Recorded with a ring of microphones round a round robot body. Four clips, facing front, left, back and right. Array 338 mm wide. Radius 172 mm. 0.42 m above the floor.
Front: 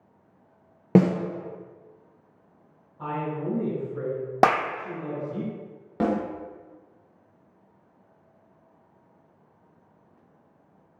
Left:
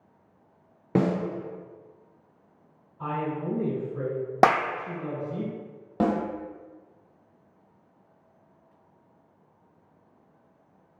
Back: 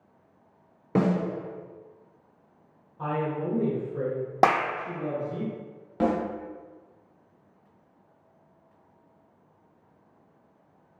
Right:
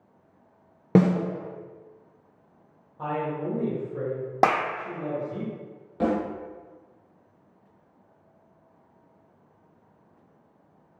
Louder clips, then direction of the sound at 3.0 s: Right 1 dB, back 1 dB; 110° right.